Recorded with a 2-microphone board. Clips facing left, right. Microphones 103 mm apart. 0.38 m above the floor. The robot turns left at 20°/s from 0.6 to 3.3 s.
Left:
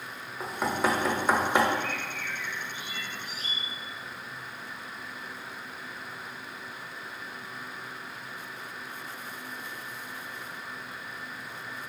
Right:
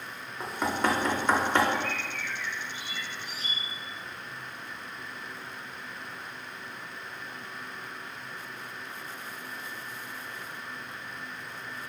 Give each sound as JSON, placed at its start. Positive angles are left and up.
{"t": 0.4, "sound": "knocking", "side_deg": 0, "distance_m": 0.6}
{"t": 1.7, "sound": "a bird", "azimuth_deg": 95, "distance_m": 0.8}